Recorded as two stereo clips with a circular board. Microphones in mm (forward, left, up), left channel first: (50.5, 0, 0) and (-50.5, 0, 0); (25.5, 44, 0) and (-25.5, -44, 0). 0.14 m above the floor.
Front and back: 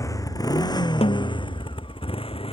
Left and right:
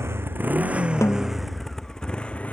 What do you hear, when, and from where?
0.0 s a motorcycle: 55° right; by 2.5 s 15° right
1.0 s a snare drum: straight ahead